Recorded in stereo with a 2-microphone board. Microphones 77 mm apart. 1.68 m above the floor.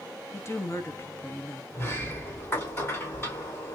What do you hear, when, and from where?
0.3 s a woman speaking: 35° left (ahead or behind), 1.0 m
1.7 s a sliding door: 35° left (ahead or behind), 3.5 m